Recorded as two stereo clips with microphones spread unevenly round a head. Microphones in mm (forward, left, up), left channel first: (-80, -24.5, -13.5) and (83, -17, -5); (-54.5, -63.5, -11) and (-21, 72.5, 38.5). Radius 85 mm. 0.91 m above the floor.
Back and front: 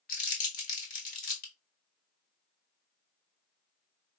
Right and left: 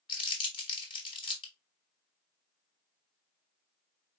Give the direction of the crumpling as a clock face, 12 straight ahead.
5 o'clock.